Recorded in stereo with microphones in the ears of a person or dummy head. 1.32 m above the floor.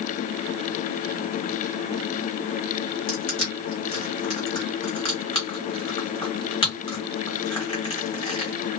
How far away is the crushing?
About 1.5 m.